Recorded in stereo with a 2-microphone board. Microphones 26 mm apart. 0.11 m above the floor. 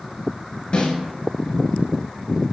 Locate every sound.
0.7 s a snare drum: 40° left (ahead or behind), 0.9 m